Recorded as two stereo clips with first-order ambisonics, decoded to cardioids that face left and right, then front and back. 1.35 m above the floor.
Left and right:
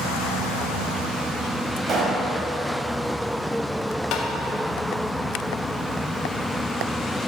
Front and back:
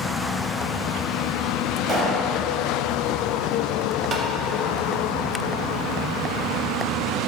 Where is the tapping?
125° left, 0.7 m.